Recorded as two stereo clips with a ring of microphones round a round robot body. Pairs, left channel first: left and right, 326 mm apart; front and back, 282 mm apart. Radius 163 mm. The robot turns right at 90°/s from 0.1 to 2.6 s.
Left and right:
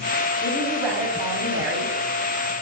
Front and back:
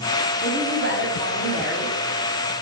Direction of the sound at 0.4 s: 145° left.